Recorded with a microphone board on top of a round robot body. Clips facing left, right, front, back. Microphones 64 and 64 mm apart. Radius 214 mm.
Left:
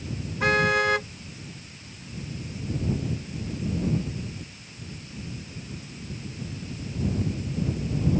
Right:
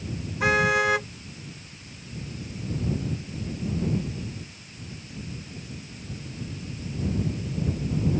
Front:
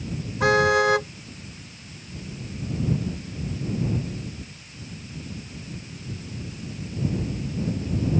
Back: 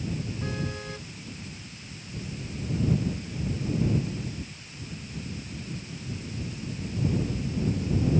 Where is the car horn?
5° right.